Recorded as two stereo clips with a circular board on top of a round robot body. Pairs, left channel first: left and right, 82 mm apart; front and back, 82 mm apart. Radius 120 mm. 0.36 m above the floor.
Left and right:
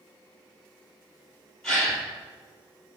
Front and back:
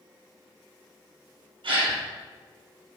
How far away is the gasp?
About 3.5 m.